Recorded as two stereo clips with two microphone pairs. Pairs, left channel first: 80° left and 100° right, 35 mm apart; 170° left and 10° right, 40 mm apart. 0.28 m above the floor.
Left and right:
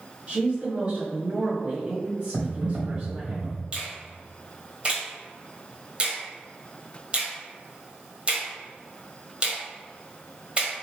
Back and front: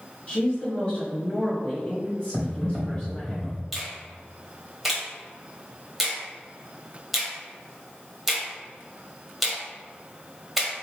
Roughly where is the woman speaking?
Behind right.